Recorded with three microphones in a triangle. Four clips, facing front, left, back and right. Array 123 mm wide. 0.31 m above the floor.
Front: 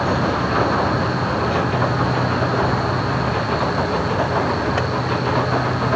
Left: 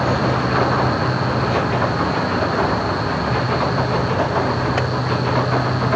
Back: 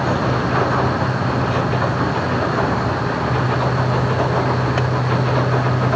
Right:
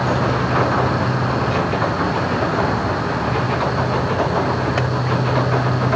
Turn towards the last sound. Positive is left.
No sound to turn to.